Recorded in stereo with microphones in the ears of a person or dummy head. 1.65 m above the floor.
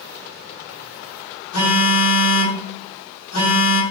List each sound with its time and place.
1.5 s a phone buzzing: 85° left, 1.1 m